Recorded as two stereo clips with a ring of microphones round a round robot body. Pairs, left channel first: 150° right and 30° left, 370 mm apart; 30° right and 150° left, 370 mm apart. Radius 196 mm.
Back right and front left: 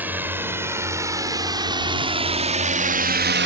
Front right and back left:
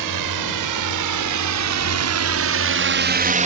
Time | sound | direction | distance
0.0 | a drone | 115° left | ?